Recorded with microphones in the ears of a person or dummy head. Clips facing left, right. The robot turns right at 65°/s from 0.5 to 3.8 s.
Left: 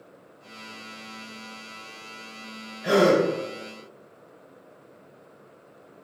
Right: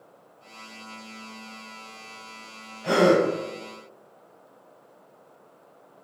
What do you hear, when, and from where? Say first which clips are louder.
2.8 s a gasp: even; 20° left (ahead or behind), 1.0 m; by 3.2 s 45° left (ahead or behind), 1.0 m